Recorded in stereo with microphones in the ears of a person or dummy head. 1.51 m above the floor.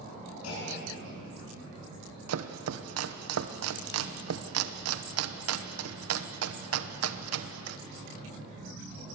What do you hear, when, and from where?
0.4 s a clunk: 80° left, 9 m
2.3 s chopping: 85° right, 1.0 m